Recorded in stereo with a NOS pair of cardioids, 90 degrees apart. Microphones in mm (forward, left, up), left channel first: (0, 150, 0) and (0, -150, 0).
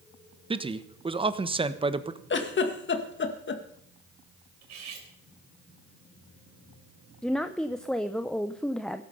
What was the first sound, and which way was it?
A man speaking, 15° right.